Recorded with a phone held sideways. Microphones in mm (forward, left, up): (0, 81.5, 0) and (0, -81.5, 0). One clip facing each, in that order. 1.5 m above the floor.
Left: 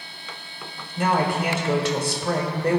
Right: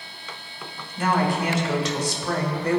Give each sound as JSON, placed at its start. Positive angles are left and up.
{"t": 1.0, "sound": "a woman speaking", "side_deg": 55, "distance_m": 1.1}